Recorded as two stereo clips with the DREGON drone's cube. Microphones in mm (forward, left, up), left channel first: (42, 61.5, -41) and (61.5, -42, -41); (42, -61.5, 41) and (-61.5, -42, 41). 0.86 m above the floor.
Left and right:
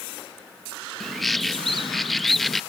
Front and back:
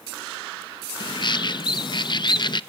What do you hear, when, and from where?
1.0 s a bird: 10° left, 0.7 m